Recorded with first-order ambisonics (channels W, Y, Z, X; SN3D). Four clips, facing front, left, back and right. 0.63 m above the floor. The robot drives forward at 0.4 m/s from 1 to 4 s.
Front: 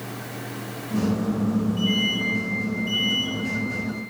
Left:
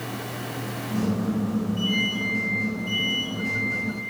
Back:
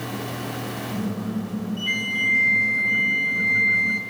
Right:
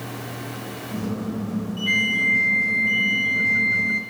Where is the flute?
125° right, 2.5 m; by 4.0 s 135° right, 3 m.